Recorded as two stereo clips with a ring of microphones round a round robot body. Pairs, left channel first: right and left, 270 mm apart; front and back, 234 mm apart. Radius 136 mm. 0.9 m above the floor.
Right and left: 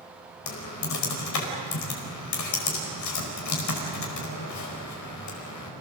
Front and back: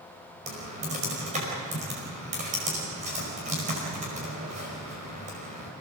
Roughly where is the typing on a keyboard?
Behind right.